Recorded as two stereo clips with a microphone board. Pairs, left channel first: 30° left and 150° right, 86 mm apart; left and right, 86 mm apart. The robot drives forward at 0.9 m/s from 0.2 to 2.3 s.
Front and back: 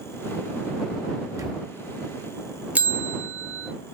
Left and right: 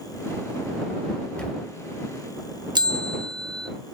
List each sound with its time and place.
1.4 s a camera shutter: 165° left, 0.8 m
2.8 s a bell: 80° right, 0.6 m